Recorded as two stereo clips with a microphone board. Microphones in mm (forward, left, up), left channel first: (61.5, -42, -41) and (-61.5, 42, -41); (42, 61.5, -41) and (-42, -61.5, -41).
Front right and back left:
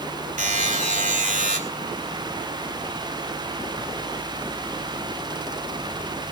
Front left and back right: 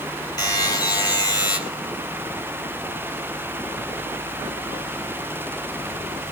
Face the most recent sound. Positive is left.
turn(degrees=120)